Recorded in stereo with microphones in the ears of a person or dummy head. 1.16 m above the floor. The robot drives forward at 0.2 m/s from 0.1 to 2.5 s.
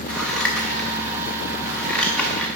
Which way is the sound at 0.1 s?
Centre (ahead or behind).